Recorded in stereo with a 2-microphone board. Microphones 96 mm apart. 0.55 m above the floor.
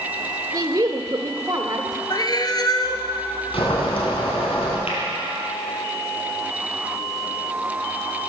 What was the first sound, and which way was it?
A woman speaking, 35° right (ahead or behind).